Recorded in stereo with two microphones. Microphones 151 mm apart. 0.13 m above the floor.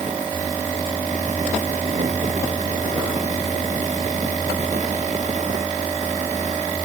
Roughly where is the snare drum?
I don't hear a snare drum.